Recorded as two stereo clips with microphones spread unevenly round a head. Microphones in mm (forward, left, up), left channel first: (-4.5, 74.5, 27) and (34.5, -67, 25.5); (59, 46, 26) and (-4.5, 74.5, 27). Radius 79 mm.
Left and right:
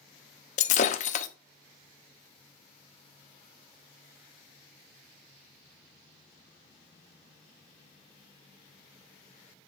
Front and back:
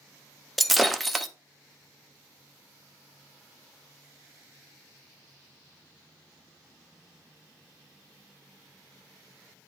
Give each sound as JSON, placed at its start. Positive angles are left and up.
{"t": 0.6, "sound": "breaking glass", "azimuth_deg": 65, "distance_m": 0.7}